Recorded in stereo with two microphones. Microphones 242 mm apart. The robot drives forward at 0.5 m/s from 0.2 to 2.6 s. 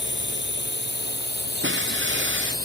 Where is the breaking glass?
50° right (ahead or behind).